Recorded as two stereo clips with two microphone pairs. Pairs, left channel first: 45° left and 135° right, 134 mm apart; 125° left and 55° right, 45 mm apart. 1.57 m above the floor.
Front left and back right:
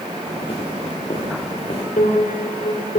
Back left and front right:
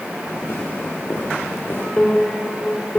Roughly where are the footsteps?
Left.